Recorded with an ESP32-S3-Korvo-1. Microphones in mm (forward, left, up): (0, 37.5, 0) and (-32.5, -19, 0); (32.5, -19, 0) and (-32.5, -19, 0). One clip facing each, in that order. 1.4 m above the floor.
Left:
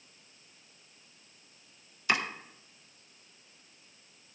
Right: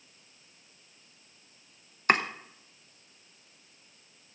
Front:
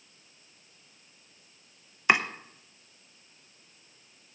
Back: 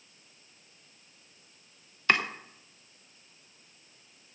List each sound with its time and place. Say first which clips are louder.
2.1 s chopping: right 5 dB, front 2 dB; 75° right, 1.0 m